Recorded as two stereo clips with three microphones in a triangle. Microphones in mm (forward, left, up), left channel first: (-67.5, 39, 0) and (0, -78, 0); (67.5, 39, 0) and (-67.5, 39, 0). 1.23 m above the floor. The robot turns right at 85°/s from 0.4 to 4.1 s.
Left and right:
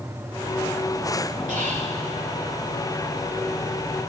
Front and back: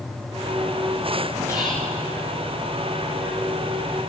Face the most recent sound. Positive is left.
turn(degrees=155)